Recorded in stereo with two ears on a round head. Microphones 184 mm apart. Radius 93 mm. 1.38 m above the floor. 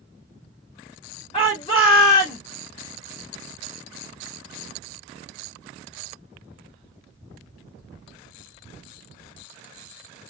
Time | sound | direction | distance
1.3 | a shout | 20° left (ahead or behind) | 1.5 m